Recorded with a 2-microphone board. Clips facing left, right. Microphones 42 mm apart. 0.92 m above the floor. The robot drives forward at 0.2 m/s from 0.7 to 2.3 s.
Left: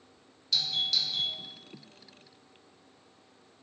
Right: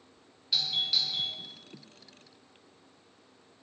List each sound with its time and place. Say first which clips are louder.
0.5 s a doorbell: even; 15° right (ahead or behind), 1.4 m